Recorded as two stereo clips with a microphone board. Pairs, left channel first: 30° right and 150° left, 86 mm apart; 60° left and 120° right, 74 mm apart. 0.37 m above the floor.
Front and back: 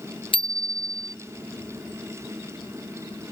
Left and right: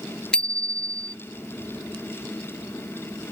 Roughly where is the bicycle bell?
Ahead.